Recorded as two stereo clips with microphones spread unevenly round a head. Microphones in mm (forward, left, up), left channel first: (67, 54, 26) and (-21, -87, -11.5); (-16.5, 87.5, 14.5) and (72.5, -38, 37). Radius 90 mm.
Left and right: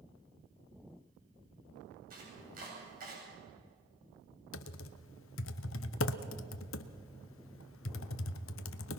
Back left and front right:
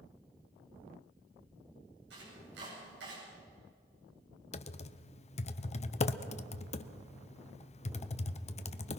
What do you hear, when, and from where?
2.1 s chopping: 85° right, 9 m
4.5 s typing on a keyboard: 75° left, 0.7 m